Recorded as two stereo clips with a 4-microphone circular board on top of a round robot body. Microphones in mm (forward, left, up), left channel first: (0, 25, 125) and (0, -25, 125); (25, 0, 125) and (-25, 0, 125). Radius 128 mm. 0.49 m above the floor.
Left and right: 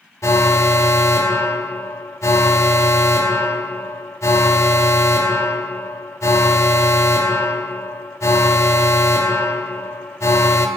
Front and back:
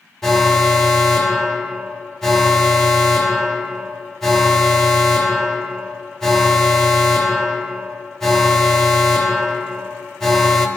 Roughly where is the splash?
I don't hear a splash.